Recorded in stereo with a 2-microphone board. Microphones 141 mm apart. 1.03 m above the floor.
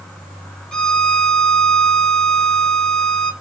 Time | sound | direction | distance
0.7 | a violin | 5° left (ahead or behind) | 0.6 m